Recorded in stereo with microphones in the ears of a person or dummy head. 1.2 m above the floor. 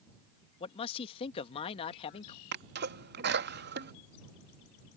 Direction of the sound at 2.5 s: 50° right (ahead or behind).